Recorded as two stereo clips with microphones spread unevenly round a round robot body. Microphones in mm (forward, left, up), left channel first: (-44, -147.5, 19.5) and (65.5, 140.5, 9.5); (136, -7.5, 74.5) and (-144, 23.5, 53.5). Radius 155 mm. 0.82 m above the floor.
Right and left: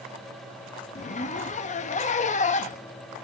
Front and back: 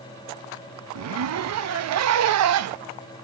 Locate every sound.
0.9 s a zipper: 175° right, 0.8 m